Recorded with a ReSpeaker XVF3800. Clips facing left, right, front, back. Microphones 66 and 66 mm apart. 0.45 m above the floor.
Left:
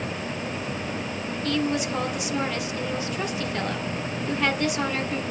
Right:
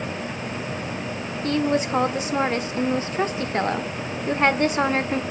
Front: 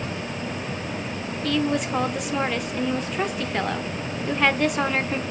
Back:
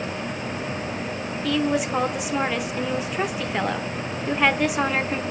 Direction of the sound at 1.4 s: 95° right.